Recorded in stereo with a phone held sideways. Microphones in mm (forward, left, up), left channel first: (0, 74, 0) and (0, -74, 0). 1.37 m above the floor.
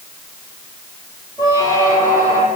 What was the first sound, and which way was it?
A squeak, 25° right (ahead or behind).